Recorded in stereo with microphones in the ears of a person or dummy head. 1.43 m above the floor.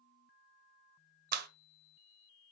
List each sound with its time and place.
1.3 s a clap: 50° right (ahead or behind), 1.2 m